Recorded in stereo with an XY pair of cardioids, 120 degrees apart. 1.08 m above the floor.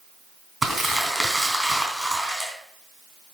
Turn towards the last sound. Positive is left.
turn(degrees=-5)